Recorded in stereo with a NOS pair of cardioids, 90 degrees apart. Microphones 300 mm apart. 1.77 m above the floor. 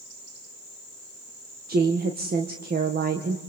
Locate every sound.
1.7 s a woman speaking: 30° right, 2.0 m